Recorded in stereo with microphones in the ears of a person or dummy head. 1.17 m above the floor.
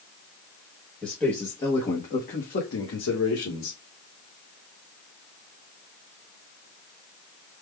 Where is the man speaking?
5° left (ahead or behind), 1.2 m; by 3.8 s 80° left, 1.4 m.